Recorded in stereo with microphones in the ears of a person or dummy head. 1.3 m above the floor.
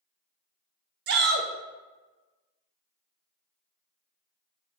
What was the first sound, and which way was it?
A shout, 55° right (ahead or behind).